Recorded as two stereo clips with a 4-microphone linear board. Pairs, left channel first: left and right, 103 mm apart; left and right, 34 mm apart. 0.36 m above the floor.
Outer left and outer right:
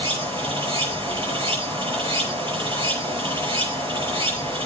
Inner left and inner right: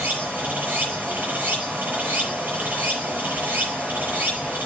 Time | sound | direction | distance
0.0 | running water | 55° right (ahead or behind) | 8 m